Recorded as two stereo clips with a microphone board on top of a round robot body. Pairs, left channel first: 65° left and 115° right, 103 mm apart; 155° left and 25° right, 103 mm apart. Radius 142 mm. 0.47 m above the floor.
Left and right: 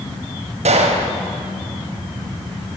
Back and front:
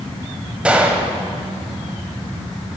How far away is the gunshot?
About 1.0 m.